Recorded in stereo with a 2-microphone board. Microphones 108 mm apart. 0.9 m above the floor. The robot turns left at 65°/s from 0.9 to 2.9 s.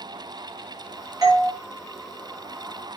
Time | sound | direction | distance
1.2 | a doorbell | 35° right (ahead or behind) | 1.0 m